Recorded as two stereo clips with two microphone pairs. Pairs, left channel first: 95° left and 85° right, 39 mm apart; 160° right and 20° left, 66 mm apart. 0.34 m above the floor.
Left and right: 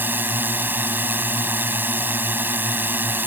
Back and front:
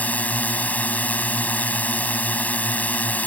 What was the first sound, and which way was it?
A drone, 95° right.